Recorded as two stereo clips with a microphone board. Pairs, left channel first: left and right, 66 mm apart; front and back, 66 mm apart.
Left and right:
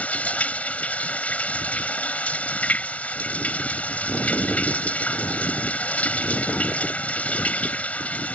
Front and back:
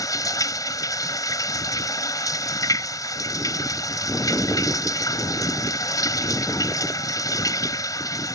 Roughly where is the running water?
Ahead left.